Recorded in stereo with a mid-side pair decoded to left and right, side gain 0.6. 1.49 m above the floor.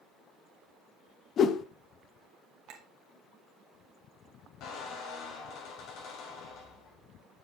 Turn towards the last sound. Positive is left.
turn(degrees=65)